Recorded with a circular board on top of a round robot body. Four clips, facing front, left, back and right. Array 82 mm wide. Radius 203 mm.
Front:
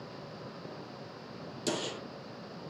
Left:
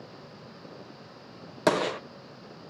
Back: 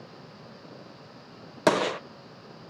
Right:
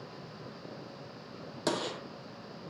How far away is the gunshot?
About 0.6 m.